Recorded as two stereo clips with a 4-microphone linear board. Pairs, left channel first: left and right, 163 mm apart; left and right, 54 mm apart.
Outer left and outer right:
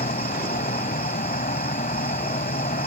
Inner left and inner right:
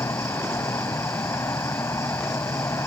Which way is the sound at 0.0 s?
60° left (ahead or behind).